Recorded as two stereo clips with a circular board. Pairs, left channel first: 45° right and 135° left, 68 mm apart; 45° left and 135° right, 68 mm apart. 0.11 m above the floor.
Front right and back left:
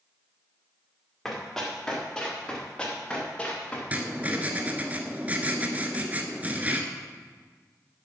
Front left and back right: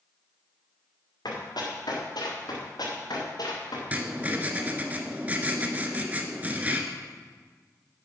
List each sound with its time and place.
1.2 s running footsteps: 40° left, 4.5 m; by 3.8 s 25° left, 5 m
3.9 s writing: straight behind, 1.2 m